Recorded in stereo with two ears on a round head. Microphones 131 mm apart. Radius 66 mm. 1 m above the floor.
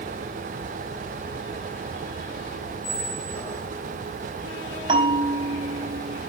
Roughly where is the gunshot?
No gunshot in this recording.